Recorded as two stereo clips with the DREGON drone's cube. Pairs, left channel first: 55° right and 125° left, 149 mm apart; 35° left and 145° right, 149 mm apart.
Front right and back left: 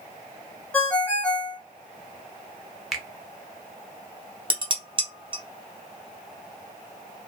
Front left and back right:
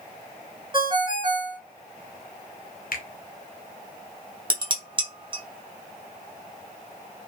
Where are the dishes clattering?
170° left, 0.7 m.